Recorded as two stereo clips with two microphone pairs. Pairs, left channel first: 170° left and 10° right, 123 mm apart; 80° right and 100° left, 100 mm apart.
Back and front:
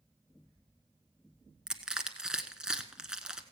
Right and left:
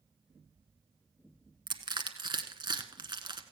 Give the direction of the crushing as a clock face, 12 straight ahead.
10 o'clock.